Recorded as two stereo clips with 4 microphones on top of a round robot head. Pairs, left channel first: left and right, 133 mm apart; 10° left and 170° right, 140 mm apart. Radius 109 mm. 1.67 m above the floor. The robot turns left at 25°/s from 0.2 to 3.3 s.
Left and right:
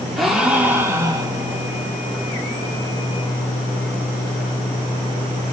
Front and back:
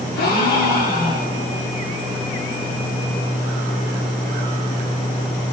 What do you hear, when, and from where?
0.2 s a gasp: straight ahead, 0.8 m; by 1.6 s 35° right, 0.8 m